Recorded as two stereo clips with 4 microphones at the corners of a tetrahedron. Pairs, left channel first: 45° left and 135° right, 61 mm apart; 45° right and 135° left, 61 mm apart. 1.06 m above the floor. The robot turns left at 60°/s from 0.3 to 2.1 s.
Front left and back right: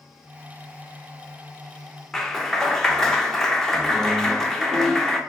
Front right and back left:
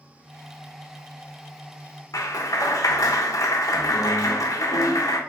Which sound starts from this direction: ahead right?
A clap, at 2.1 s.